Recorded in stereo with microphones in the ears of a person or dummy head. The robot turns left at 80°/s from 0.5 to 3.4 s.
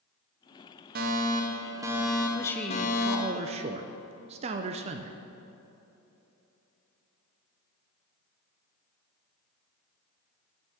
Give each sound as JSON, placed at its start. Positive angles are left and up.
{"t": 0.9, "sound": "a fire alarm", "azimuth_deg": -85, "distance_m": 1.2}
{"t": 2.3, "sound": "a man speaking", "azimuth_deg": 25, "distance_m": 0.6}